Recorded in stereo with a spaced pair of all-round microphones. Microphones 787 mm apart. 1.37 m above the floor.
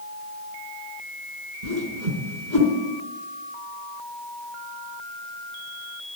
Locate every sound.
1.6 s a whoosh: 60° right (ahead or behind), 2.5 m